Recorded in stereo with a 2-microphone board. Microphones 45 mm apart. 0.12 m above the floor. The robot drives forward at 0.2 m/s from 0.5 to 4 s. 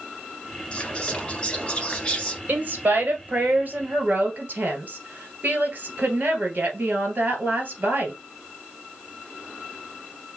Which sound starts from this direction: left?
Whispering, at 0.7 s.